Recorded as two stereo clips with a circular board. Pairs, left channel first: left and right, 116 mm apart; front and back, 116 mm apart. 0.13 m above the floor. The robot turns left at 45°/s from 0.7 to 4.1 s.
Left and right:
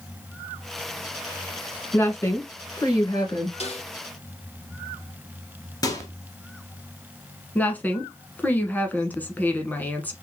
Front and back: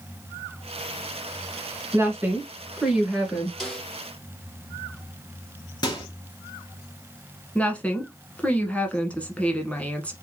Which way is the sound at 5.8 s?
45° left.